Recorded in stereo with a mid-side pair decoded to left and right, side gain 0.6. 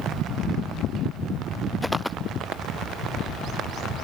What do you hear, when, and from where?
1.8 s footsteps: 5° left